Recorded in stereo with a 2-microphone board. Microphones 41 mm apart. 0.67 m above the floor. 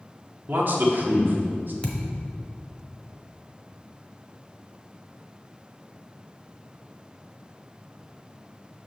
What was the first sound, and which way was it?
A man speaking, 55° right (ahead or behind).